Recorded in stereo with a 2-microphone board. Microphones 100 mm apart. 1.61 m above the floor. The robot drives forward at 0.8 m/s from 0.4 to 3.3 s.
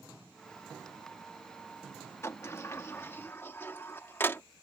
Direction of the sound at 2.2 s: 30° left (ahead or behind).